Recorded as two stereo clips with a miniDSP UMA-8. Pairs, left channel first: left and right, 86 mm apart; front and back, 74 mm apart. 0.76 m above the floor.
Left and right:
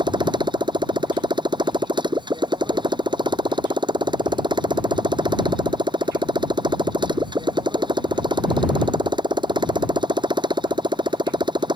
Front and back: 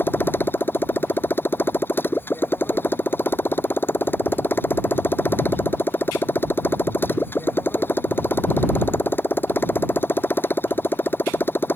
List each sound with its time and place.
0.0 s a motorcycle: 65° right